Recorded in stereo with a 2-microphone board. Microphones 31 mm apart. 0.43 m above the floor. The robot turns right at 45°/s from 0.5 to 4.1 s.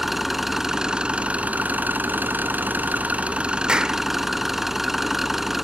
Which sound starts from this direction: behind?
An engine running, at 0.0 s.